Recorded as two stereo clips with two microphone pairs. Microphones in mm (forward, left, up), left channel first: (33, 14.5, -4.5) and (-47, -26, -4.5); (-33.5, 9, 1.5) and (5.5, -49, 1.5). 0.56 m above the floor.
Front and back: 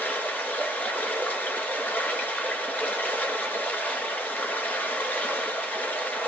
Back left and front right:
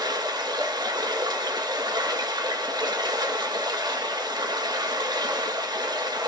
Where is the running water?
45° right, 1.5 m.